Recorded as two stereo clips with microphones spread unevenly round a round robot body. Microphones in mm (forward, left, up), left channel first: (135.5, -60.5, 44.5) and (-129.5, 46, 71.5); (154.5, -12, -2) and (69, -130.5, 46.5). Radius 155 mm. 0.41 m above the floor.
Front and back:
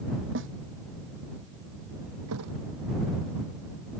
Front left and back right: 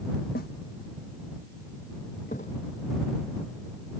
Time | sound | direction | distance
0.3 | a snare drum | 110° left | ?
2.3 | a thud | 120° left | ?